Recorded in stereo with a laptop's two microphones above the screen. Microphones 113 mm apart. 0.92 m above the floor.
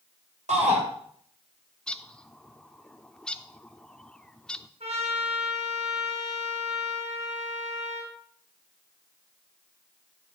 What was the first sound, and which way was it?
A shout, 80° right.